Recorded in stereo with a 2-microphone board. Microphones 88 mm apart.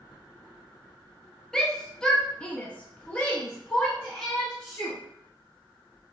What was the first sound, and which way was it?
A shout, 5° left (ahead or behind).